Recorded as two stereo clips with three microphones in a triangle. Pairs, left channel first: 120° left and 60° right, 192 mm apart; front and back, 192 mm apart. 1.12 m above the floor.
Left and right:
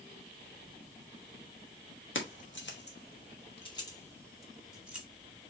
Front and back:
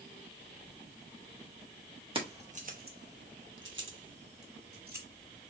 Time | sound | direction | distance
2.1 | keys jangling | 120° left | 1.3 m